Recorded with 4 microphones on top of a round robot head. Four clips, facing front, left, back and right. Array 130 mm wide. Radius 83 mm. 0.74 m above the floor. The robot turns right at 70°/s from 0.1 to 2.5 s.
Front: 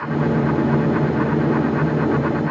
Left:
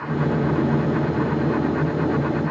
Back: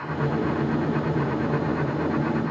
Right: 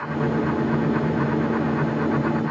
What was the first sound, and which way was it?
Only background noise.